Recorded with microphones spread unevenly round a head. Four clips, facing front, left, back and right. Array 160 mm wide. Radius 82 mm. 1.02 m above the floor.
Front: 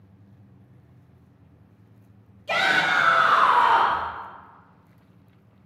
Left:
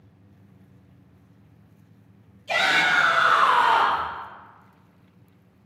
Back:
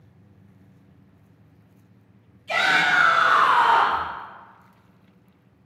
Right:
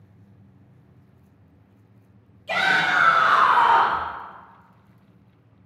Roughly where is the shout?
Ahead.